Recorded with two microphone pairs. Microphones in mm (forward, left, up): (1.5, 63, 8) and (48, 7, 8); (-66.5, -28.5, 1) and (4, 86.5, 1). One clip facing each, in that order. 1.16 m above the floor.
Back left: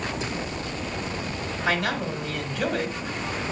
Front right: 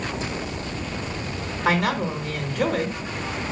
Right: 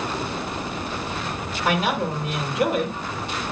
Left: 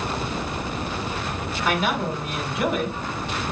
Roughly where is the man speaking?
Right.